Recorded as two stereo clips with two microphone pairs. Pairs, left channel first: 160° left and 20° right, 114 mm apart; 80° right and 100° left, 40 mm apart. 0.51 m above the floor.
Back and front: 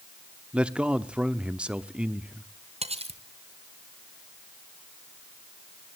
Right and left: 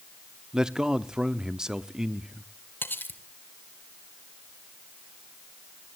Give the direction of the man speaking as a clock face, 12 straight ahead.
10 o'clock.